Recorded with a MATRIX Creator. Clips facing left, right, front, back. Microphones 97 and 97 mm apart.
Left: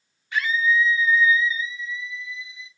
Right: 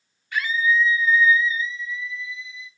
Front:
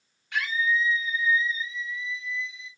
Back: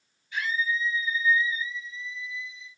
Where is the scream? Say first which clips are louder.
Even, front 3 dB; 20° left, 2 m; by 2.7 s 25° left, 4.5 m.